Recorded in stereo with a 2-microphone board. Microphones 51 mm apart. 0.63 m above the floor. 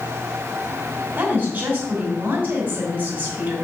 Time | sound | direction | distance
1.2 | a woman speaking | 35° right (ahead or behind) | 4 m